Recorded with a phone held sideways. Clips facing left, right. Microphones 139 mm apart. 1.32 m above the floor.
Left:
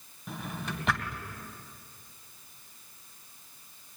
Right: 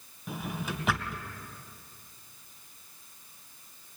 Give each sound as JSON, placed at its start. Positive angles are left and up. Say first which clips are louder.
{"t": 0.3, "sound": "a drawer", "louder": "right 2 dB", "side_deg": -5, "distance_m": 2.5}